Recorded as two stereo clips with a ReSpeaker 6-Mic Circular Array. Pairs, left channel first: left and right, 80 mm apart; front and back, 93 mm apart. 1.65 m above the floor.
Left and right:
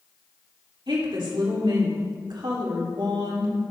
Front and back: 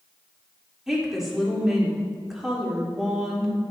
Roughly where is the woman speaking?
Right.